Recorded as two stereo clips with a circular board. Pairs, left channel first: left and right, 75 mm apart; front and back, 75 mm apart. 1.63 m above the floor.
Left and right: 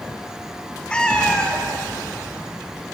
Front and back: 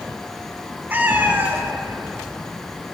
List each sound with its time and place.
0.9 s a cat meowing: 150° left, 0.8 m